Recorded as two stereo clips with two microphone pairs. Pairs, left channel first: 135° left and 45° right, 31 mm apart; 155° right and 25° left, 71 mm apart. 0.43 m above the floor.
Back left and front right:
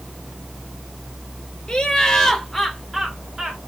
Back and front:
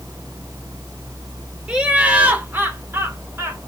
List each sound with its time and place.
1.7 s laughter: 90° left, 1.1 m; by 3.6 s 10° left, 1.2 m